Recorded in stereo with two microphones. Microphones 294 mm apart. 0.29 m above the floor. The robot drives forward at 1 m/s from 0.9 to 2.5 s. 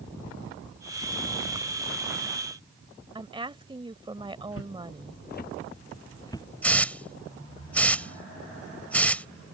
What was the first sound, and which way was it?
A woman speaking, 15° right (ahead or behind).